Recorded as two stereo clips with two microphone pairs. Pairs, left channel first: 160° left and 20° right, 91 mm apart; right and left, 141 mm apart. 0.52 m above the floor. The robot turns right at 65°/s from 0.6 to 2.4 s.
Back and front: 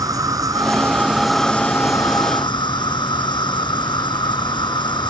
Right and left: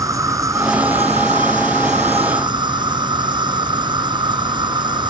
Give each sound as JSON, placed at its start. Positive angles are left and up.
{"t": 0.0, "sound": "an insect", "azimuth_deg": 25}